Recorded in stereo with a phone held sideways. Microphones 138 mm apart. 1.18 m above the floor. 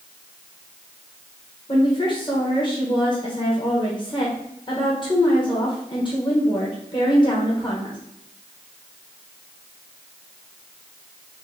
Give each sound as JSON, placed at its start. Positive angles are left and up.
{"t": 1.7, "sound": "a woman speaking", "side_deg": 35, "distance_m": 1.1}